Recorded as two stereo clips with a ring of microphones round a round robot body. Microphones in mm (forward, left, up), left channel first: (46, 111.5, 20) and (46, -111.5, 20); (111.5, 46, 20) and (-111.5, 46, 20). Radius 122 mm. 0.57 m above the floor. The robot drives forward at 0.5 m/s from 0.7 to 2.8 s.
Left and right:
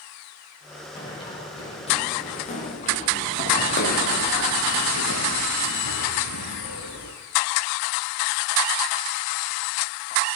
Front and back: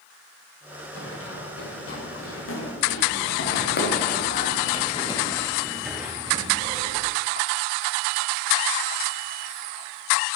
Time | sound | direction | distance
0.9 | running footsteps | 20° left | 9 m